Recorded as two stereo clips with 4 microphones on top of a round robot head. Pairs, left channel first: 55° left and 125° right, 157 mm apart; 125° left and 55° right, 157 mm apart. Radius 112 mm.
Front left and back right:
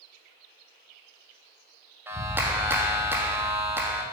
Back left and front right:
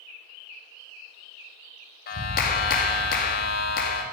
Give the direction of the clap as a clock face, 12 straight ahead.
7 o'clock.